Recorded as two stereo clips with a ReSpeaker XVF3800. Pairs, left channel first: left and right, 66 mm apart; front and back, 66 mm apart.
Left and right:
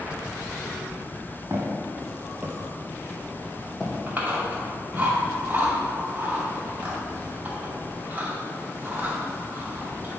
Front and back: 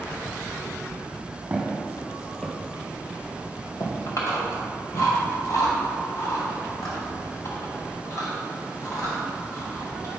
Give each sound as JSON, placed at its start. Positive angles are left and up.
{"t": 1.5, "sound": "footsteps", "azimuth_deg": -115, "distance_m": 2.0}
{"t": 4.1, "sound": "chewing", "azimuth_deg": -25, "distance_m": 2.5}